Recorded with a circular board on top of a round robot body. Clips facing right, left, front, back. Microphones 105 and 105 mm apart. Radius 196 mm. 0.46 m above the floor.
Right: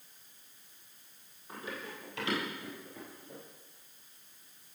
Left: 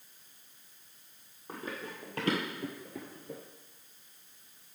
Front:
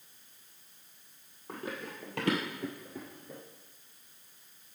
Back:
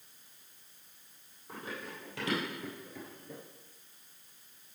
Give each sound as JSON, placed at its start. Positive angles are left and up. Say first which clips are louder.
{"t": 1.5, "sound": "running footsteps", "louder": "left 2 dB, front 3 dB", "azimuth_deg": 35, "distance_m": 1.6}